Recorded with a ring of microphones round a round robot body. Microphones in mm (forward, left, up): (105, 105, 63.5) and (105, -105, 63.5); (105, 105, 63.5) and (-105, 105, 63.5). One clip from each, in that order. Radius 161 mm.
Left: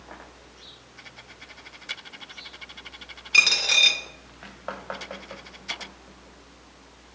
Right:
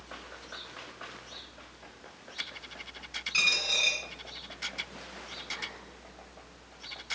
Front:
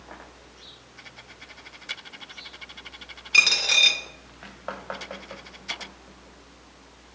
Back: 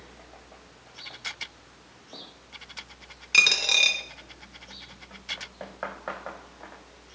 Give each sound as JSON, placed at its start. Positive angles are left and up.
{"t": 3.3, "sound": "a dropped coin", "azimuth_deg": 115, "distance_m": 0.7}